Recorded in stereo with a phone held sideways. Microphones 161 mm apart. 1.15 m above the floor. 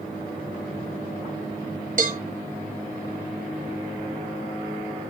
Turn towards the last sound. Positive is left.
turn(degrees=-55)  # may be behind; listen again after turning